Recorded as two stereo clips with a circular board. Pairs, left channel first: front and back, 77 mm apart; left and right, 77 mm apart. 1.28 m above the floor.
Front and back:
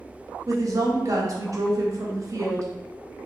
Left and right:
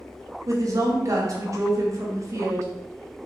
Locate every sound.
0.5 s a woman speaking: 135° right, 0.9 m